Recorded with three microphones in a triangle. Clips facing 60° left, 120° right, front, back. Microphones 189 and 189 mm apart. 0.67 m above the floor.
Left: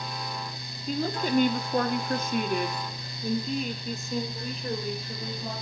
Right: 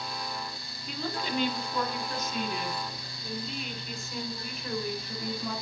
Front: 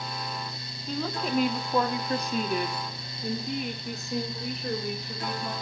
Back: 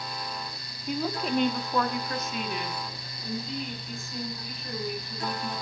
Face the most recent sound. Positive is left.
turn(degrees=0)